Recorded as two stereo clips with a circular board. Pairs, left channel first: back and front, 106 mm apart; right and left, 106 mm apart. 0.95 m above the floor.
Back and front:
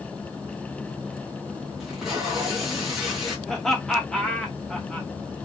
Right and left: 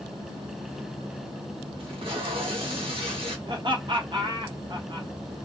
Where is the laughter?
95° left, 1.1 m.